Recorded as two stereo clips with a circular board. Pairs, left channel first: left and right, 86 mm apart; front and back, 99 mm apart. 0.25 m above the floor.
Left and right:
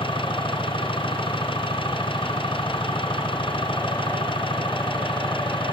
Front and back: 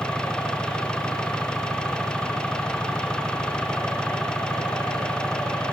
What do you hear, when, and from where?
0.0 s an engine running: 80° left